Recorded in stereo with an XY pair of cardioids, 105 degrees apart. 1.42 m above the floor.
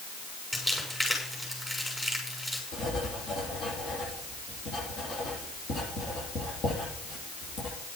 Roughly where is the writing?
Ahead left.